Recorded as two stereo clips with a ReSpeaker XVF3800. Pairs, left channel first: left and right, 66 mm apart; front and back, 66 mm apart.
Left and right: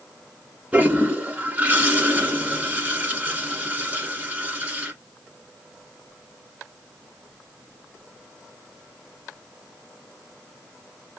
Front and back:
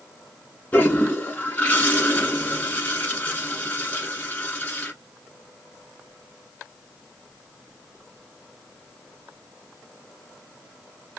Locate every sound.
0.7 s a toilet flushing: 40° right, 1.9 m